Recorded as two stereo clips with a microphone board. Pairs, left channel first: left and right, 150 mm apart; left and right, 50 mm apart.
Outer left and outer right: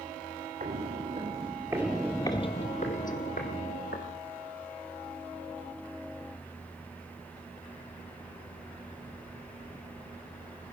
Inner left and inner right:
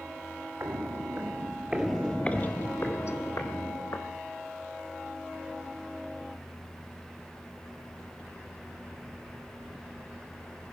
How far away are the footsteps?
About 1.5 m.